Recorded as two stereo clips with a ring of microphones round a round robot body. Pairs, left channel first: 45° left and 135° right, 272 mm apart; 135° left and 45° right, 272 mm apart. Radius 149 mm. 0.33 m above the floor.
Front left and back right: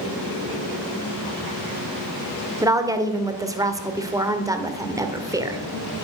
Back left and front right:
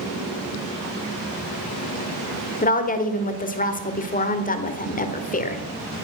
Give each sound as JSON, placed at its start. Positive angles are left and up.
{"t": 2.6, "sound": "a woman speaking", "azimuth_deg": 160, "distance_m": 1.6}